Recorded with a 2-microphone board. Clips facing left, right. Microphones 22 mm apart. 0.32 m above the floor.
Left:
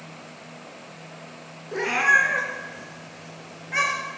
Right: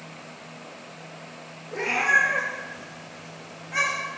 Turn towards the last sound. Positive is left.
turn(degrees=30)  # may be behind; listen again after turning